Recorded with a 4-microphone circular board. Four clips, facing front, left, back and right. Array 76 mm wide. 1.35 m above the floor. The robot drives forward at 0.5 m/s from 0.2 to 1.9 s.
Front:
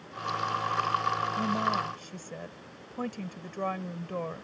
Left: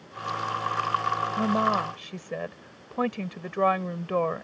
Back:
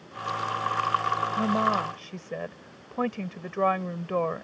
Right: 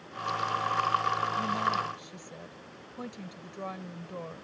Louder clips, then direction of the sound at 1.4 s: Left 5 dB, back 4 dB; 125° left.